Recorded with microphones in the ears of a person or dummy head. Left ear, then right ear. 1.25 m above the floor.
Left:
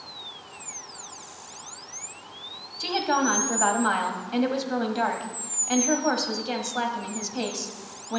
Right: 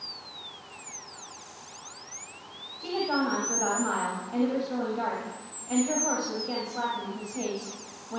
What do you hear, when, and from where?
2.8 s a woman speaking: 70° left (ahead or behind), 1.7 m